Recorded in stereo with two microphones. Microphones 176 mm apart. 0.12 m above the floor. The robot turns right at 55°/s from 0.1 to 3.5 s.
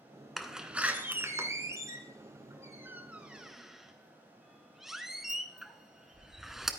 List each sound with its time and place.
0.4 s a door slam: centre (ahead or behind), 0.8 m